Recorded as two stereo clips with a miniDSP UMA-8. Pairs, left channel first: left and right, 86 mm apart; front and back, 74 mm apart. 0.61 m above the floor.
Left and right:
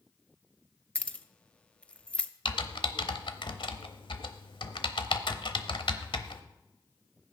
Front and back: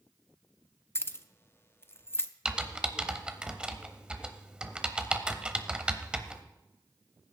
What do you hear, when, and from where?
0.9 s keys jangling: 25° left, 0.6 m
2.5 s typing on a keyboard: 105° left, 0.9 m